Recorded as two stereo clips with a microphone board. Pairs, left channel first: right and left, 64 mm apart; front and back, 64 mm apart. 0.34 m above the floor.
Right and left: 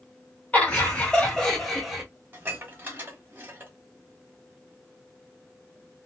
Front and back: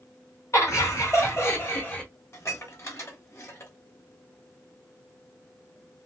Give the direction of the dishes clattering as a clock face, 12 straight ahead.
11 o'clock.